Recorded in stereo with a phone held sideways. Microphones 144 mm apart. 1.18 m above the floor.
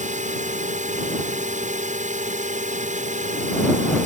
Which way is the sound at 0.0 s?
60° right (ahead or behind).